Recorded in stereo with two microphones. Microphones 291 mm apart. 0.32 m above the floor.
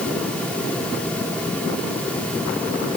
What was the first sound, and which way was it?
Only background noise.